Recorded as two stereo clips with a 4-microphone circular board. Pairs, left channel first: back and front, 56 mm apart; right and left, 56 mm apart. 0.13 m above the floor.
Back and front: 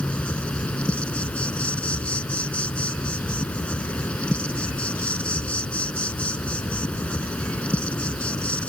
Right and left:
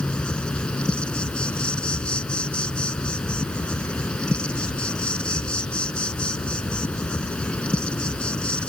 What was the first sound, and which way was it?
An insect, 140° right.